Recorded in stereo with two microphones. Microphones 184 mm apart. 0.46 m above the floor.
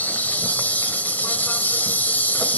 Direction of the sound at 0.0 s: 10° left (ahead or behind).